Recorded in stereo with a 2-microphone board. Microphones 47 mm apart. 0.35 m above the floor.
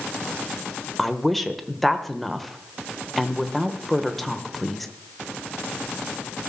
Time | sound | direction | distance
1.0 | a woman speaking | 5° left (ahead or behind) | 1.1 m